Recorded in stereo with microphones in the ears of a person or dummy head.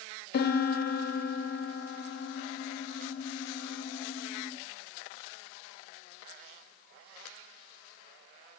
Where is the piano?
55° left (ahead or behind), 1.4 m.